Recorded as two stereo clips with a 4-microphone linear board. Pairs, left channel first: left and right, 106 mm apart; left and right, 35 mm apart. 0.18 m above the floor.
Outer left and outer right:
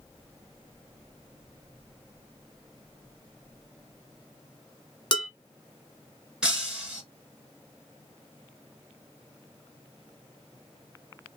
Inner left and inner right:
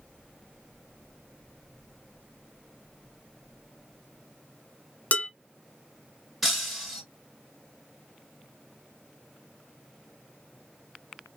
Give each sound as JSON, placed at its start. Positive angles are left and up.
{"t": 5.1, "sound": "dishes clattering", "side_deg": 40, "distance_m": 1.1}
{"t": 6.4, "sound": "breaking glass", "side_deg": -5, "distance_m": 1.6}